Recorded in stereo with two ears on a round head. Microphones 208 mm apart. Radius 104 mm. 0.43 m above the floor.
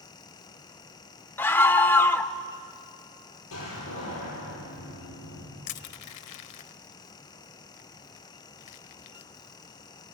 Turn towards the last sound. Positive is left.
turn(degrees=80)